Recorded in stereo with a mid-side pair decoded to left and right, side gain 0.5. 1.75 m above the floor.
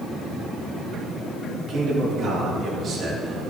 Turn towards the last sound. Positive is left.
turn(degrees=-45)